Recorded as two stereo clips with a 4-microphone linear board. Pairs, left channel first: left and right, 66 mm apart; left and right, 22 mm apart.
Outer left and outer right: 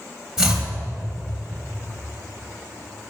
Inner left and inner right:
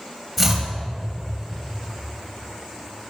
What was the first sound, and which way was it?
Chopping, 10° right (ahead or behind).